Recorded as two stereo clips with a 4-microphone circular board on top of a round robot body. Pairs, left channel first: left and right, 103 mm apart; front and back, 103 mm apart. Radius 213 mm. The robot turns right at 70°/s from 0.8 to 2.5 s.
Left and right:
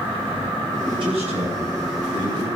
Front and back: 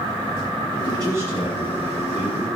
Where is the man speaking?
135° right, 6 m; by 2.5 s 25° right, 6 m.